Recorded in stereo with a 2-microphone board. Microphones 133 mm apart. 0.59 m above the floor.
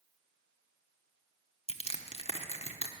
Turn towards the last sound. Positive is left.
turn(degrees=50)  # may be behind; listen again after turning